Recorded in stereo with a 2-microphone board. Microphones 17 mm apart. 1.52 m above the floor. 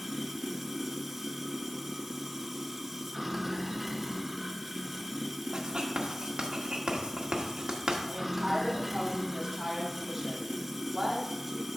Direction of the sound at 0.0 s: 5° right (ahead or behind).